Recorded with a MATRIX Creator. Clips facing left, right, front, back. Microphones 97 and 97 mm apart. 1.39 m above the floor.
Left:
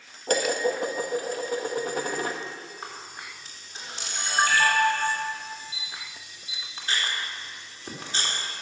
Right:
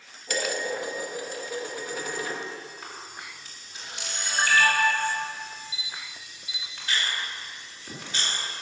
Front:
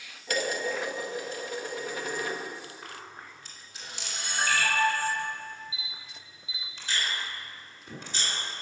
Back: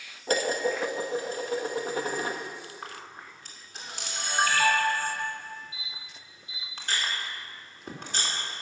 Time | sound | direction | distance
0.3 | dishes clattering | 130° left | 1.2 m
2.8 | a camera shutter | 145° left | 3 m